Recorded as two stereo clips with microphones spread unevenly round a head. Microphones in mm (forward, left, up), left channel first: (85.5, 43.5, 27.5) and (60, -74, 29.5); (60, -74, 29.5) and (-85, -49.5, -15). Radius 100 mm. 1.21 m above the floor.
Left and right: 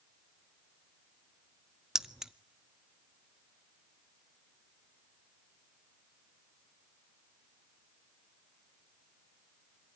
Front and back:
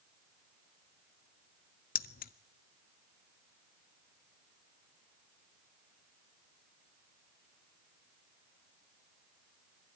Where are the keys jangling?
15° right, 0.7 m.